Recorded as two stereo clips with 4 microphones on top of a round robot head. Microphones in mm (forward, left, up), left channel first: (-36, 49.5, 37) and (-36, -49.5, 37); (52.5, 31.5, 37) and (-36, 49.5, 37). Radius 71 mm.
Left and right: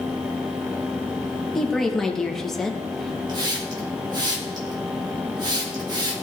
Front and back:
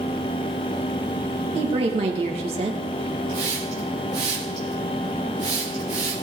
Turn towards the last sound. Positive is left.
turn(degrees=-135)